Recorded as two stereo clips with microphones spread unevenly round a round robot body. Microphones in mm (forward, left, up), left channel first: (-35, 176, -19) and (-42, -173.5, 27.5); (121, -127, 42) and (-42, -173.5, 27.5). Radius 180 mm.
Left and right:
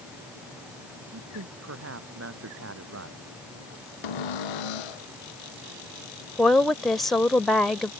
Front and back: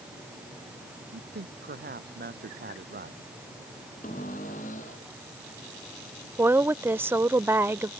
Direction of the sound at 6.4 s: 160° left.